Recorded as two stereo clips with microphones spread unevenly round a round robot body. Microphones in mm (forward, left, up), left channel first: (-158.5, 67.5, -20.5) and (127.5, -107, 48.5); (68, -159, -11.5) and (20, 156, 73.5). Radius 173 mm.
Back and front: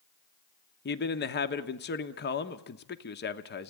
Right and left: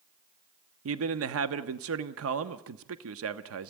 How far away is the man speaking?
About 1.0 m.